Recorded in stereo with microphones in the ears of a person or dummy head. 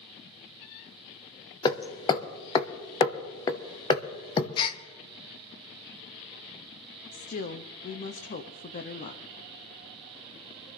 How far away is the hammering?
About 1.1 m.